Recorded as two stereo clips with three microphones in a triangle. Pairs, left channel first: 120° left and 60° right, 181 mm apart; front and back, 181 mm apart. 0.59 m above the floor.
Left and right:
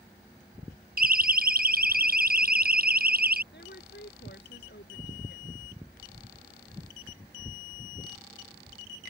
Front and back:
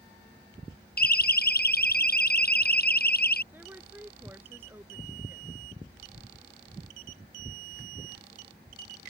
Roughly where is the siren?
Ahead right.